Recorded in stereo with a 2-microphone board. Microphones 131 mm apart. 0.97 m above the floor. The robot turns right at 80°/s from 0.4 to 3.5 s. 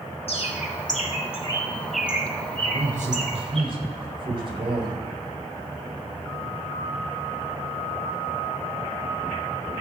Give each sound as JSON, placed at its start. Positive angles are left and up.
{"t": 0.3, "sound": "a bird", "side_deg": 50, "distance_m": 1.8}
{"t": 2.6, "sound": "a man speaking", "azimuth_deg": -115, "distance_m": 3.5}